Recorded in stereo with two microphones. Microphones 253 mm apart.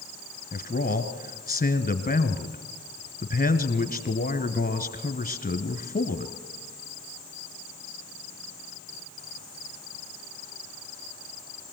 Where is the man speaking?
35° left (ahead or behind), 1.4 m.